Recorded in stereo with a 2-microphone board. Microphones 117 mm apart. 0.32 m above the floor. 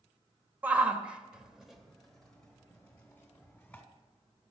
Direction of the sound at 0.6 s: 15° right (ahead or behind).